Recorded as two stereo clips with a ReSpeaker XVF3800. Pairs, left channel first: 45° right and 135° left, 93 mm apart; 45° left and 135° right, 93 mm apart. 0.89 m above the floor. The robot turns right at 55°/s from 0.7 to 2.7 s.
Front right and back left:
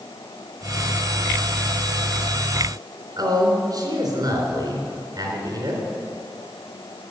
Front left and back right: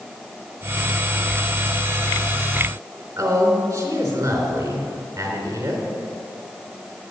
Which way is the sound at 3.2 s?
170° left.